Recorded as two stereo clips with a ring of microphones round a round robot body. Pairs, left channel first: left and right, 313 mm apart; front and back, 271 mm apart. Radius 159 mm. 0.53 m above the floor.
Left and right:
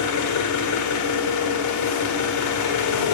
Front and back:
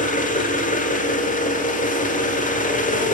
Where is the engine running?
60° left, 1.4 m.